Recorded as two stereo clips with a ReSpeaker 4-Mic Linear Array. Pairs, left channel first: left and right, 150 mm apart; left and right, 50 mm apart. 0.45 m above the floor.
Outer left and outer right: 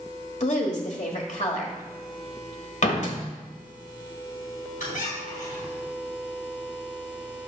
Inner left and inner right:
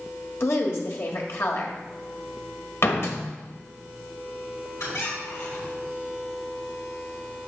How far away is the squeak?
About 3 m.